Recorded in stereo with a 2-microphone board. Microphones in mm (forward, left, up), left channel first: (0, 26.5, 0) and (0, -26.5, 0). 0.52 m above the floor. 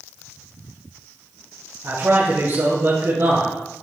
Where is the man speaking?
65° right (ahead or behind), 3.5 m.